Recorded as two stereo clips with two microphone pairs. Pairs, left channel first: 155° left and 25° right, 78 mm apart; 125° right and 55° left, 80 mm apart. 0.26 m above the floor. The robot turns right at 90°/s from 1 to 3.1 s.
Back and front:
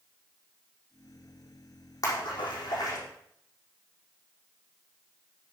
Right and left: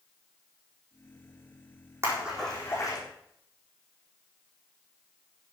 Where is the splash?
110° left, 6 m; by 3.0 s 165° right, 6 m.